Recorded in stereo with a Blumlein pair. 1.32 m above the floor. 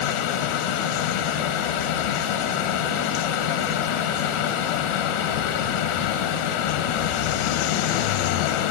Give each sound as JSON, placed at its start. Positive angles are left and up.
{"t": 0.0, "sound": "a fan", "azimuth_deg": 50, "distance_m": 1.6}